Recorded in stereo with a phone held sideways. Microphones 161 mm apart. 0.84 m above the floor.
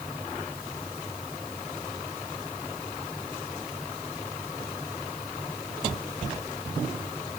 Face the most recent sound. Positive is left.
No sound to turn to.